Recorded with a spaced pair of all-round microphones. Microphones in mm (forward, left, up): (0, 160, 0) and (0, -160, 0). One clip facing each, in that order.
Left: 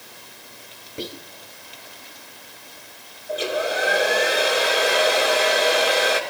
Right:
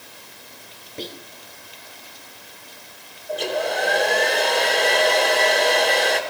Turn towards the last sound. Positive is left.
turn(degrees=5)  # may be behind; listen again after turning